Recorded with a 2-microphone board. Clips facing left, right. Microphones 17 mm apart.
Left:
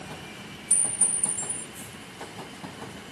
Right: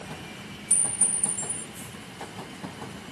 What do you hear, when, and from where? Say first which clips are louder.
0.7 s a clink: even; 10° left (ahead or behind), 6.5 m